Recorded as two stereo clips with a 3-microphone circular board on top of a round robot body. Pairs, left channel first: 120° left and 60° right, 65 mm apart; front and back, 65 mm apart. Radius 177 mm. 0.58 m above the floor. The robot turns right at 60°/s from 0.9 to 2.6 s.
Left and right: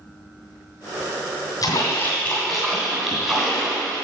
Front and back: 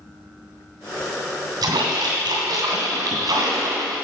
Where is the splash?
150° left, 2.5 m; by 4.0 s 150° right, 2.5 m.